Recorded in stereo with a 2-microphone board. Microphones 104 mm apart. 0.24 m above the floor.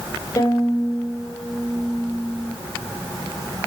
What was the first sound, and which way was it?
A violin, 30° left (ahead or behind).